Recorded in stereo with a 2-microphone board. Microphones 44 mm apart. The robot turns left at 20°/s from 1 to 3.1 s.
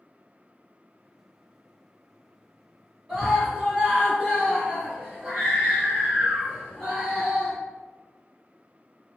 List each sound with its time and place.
3.1 s a scream: 20° right (ahead or behind), 1.7 m